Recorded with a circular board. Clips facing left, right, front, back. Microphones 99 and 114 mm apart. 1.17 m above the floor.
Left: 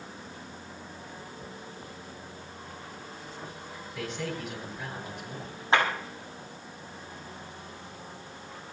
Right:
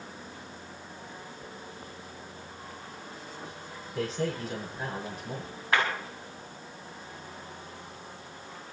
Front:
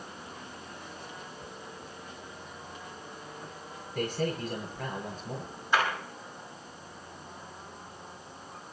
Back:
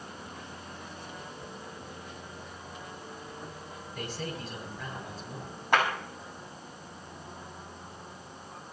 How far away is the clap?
About 6.5 m.